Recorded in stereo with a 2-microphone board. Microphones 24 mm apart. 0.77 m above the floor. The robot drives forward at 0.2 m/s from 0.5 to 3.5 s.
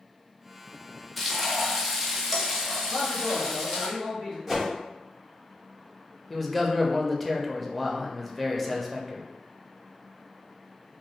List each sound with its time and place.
1.2 s frying: 5° left (ahead or behind), 0.5 m; by 3.9 s centre (ahead or behind), 0.9 m
2.9 s a man speaking: 25° left (ahead or behind), 1.2 m
4.5 s a whoosh: centre (ahead or behind), 0.8 m
6.3 s a man speaking: 5° left (ahead or behind), 0.5 m